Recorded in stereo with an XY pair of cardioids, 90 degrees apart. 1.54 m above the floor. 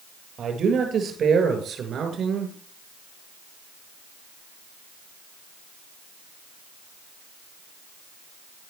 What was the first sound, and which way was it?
A man speaking, 65° right.